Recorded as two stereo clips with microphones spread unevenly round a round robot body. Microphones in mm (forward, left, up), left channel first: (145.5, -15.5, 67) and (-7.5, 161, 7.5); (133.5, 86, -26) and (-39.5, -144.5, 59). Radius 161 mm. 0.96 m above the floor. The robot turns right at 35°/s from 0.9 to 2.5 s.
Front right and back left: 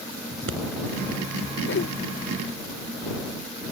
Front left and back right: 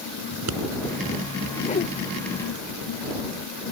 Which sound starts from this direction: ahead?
A whoosh, at 1.6 s.